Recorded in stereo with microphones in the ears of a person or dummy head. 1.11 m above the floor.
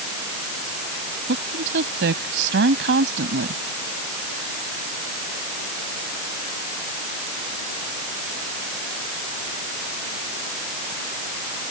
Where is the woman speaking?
60° right (ahead or behind).